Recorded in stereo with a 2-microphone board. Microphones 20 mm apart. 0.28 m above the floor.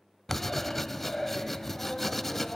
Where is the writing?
20° left (ahead or behind), 0.5 m.